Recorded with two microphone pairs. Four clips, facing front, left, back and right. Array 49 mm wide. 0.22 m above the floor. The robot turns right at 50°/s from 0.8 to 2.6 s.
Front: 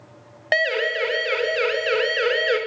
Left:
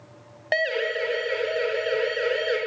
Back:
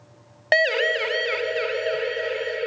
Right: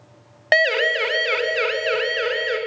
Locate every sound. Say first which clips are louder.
0.5 s a siren: right 7 dB, back 1 dB; 100° right, 2.5 m; by 2.6 s 15° right, 4.5 m